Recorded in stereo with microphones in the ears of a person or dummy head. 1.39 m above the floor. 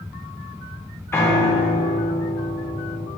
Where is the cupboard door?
No cupboard door in this recording.